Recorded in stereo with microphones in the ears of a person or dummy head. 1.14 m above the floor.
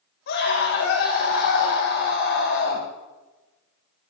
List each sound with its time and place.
0.3 s a scream: 60° left (ahead or behind), 7.5 m